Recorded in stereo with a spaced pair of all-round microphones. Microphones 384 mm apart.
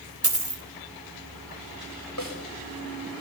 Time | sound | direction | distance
0.2 | a dropped coin | 35° right (ahead or behind) | 3 m
2.2 | a snare drum | 45° left (ahead or behind) | 5.5 m